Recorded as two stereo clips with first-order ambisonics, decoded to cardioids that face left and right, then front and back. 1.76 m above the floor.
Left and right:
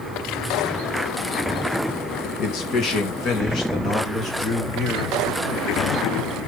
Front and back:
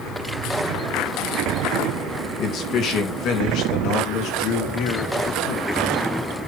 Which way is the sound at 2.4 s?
55° left.